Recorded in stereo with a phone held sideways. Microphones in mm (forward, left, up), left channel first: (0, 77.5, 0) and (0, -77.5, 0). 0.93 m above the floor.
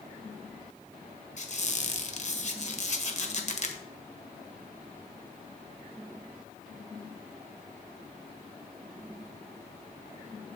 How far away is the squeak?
About 1.4 m.